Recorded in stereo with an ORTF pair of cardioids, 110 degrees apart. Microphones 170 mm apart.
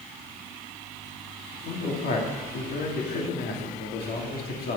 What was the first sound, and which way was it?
A man speaking, 60° left.